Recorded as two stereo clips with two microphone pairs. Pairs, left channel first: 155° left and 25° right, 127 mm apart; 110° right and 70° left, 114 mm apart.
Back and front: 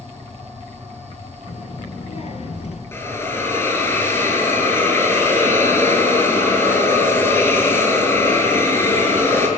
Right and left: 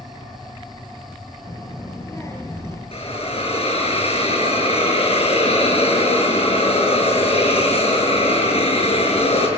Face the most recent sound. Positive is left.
turn(degrees=-135)